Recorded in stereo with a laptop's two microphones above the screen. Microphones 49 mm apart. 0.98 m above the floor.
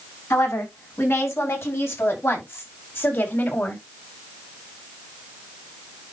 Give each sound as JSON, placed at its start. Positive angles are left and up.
{"t": 0.3, "sound": "a woman speaking", "side_deg": 70, "distance_m": 6.5}